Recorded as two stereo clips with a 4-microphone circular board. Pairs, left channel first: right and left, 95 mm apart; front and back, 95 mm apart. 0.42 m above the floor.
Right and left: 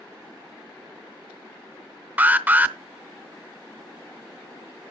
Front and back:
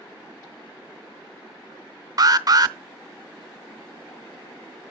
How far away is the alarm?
About 0.6 m.